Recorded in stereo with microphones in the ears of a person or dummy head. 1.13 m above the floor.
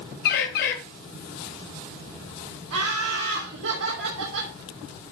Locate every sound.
0.2 s a bird: 60° left (ahead or behind), 1.6 m
2.7 s laughter: 85° right, 3 m